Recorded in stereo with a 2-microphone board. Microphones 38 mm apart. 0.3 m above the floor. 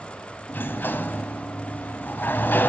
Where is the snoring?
I don't hear snoring.